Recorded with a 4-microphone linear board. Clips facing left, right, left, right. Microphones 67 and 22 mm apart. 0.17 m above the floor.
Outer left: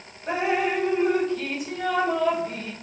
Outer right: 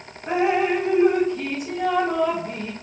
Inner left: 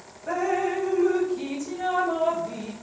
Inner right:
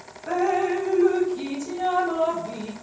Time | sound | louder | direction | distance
0.3 | dripping | outer right 4 dB, inner right 3 dB | 25° right (ahead or behind) | 2 m